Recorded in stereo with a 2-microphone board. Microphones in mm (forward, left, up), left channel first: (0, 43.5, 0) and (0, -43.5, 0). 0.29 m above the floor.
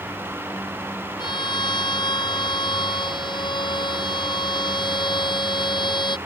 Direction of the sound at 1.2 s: 65° left (ahead or behind).